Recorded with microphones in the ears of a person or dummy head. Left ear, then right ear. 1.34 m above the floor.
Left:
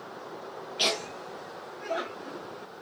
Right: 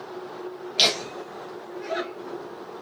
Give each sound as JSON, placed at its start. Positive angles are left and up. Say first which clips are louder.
{"t": 0.8, "sound": "laughter", "louder": "right 6 dB", "side_deg": -60, "distance_m": 0.8}